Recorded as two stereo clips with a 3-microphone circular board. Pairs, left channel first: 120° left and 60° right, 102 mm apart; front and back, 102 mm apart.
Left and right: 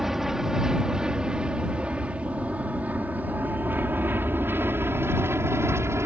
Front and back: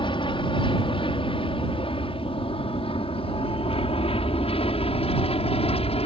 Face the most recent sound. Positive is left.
turn(degrees=5)